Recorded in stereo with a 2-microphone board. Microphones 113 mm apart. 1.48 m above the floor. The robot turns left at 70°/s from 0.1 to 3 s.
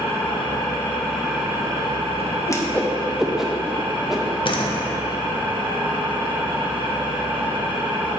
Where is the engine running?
75° left, 1.4 m; by 8.2 s 125° right, 1.4 m.